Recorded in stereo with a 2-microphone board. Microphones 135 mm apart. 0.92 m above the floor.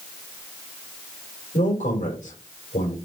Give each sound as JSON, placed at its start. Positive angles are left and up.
{"t": 1.5, "sound": "a man speaking", "side_deg": 75, "distance_m": 2.5}